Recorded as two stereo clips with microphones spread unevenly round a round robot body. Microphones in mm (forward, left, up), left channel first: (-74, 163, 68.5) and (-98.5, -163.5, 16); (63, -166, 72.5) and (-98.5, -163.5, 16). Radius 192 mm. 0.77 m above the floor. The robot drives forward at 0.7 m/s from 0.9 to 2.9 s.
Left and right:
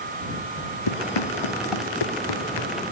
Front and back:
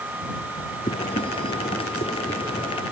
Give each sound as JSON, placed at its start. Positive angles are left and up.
{"t": 0.9, "sound": "running footsteps", "azimuth_deg": 65}